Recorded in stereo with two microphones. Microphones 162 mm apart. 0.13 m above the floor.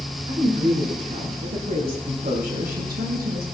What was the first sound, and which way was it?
A woman speaking, 35° right (ahead or behind).